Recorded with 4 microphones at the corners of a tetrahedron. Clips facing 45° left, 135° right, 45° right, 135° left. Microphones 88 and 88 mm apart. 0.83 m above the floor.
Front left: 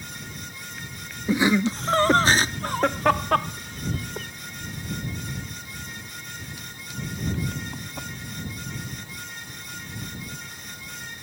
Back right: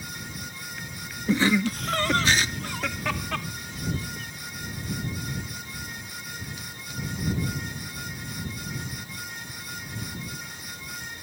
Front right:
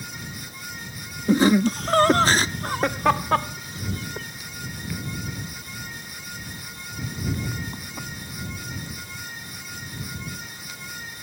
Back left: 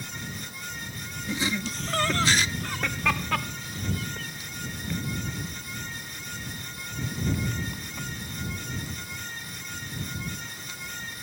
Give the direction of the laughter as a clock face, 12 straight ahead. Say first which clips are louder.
Front left 2 dB, front right 13 dB; 1 o'clock.